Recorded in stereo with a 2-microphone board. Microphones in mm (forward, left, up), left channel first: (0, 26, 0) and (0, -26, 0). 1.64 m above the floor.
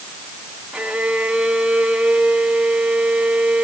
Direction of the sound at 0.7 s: 15° right (ahead or behind).